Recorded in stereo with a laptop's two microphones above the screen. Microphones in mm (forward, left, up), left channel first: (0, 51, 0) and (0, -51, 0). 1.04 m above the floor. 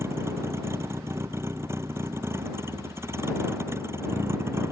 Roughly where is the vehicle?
Right.